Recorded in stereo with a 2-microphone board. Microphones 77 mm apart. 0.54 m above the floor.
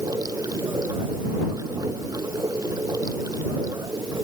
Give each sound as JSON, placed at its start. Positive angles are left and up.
{"t": 0.0, "sound": "running water", "side_deg": -55}